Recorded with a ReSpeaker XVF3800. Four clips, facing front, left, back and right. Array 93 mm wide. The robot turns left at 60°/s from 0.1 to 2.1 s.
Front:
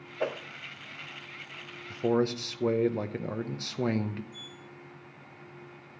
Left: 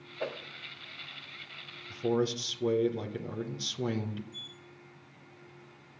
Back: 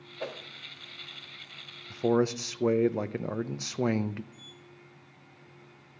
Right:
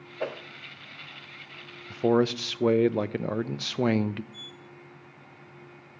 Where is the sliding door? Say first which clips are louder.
Right 4 dB, front 5 dB; 135° right, 5.5 m.